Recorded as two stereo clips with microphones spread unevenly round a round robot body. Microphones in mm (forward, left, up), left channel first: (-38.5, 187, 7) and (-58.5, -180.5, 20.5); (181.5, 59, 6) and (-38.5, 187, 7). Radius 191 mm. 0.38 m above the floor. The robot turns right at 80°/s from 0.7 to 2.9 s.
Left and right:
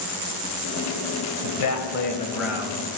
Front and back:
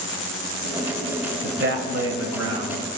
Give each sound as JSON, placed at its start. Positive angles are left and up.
{"t": 1.4, "sound": "a man speaking", "azimuth_deg": 100, "distance_m": 1.6}